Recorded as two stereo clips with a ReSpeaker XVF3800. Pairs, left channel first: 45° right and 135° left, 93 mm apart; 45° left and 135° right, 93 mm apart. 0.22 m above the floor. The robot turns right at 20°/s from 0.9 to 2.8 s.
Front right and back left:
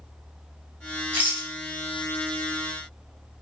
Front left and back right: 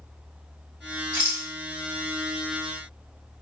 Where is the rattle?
175° right, 1.6 m; by 1.5 s 165° right, 1.6 m.